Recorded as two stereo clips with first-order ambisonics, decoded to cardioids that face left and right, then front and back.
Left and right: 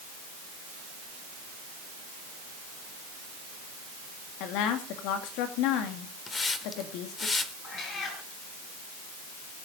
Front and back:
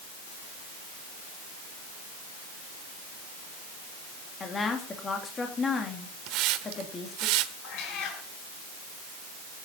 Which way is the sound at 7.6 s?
30° left.